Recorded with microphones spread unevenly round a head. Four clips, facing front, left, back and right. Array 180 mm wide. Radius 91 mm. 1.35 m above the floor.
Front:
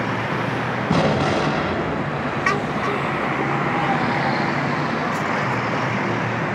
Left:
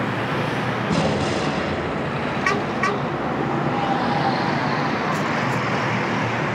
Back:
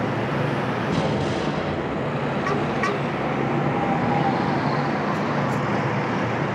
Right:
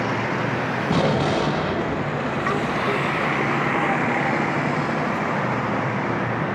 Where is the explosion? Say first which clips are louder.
Right 2 dB, front 8 dB; 20° right, 1.4 m.